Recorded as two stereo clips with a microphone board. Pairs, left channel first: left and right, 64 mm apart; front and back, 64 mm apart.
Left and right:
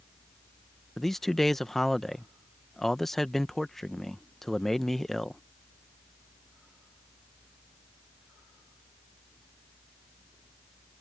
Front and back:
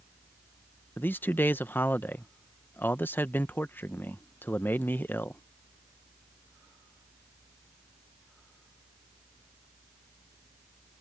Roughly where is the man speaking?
Ahead.